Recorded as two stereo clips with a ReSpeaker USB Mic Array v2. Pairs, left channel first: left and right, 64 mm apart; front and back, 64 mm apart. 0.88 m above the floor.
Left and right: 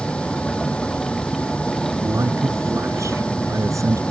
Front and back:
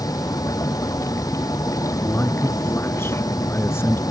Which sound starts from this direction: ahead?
A vehicle, at 0.0 s.